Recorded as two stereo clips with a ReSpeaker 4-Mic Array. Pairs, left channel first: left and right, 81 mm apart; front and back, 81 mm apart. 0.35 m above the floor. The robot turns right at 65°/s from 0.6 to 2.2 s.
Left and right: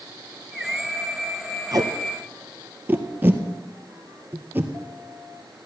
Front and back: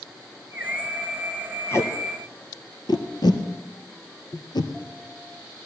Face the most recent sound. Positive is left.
turn(degrees=-25)